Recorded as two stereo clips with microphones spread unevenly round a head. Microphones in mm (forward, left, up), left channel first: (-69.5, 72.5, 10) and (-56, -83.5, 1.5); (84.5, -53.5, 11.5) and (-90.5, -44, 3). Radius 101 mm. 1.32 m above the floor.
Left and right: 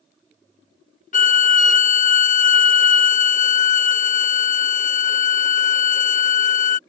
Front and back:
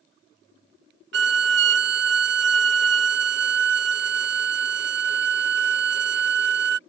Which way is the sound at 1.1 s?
135° left.